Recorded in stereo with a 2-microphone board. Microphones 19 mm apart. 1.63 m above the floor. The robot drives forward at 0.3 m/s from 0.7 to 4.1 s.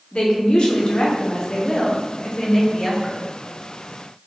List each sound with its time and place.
0.1 s a woman speaking: 50° left (ahead or behind), 0.7 m; by 3.2 s 25° left (ahead or behind), 1.2 m